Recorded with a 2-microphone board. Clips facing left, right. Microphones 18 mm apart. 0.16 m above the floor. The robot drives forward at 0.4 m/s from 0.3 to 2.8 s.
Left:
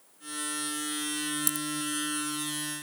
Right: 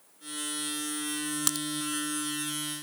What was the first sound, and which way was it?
A crack, 45° right (ahead or behind).